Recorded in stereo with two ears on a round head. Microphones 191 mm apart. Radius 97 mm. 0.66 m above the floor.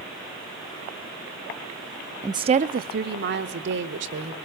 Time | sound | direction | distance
2.2 | a woman speaking | 10° right (ahead or behind) | 0.5 m